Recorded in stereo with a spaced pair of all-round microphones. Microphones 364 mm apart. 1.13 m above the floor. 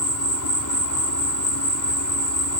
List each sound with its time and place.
0.0 s an insect: 55° left (ahead or behind)